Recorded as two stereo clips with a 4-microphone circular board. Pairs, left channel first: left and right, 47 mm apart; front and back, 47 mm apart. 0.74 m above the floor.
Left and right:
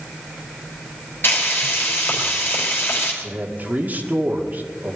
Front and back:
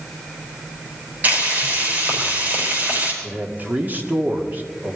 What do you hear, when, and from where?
1.2 s frying: 125° left, 4.5 m
3.2 s a man speaking: 135° right, 1.9 m